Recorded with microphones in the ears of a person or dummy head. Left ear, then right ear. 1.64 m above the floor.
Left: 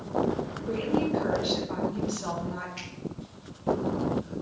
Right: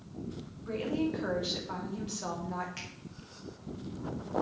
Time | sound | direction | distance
0.7 | a woman speaking | 25° right (ahead or behind) | 3 m
2.8 | a finger snap | 35° right (ahead or behind) | 4 m